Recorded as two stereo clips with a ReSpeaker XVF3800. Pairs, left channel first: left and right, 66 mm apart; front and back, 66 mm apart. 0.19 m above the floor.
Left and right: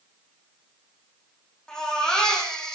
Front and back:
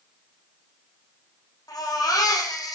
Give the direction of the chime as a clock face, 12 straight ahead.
No chime in this recording.